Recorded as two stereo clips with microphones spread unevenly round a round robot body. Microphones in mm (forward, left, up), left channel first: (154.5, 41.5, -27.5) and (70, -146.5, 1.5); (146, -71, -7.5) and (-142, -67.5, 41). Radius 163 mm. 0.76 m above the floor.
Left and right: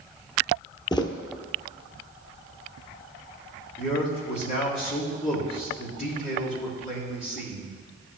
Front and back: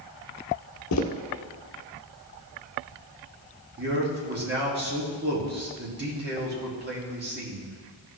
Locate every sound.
0.9 s footsteps: 5° right, 0.9 m
3.8 s a man speaking: 120° left, 1.6 m